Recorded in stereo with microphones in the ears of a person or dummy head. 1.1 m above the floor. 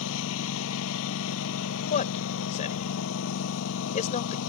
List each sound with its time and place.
0.0 s a lawn mower: 80° left
1.9 s a man speaking: 45° left (ahead or behind)